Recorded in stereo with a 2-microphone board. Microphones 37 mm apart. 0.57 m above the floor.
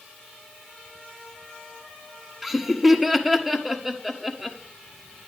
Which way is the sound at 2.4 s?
10° right (ahead or behind).